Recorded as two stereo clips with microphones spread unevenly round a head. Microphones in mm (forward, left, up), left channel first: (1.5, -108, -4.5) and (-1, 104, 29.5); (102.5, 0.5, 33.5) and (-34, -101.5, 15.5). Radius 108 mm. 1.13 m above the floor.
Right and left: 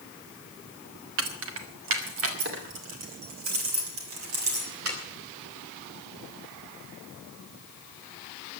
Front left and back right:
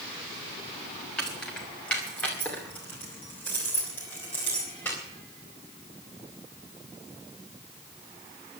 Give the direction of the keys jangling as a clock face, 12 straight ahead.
8 o'clock.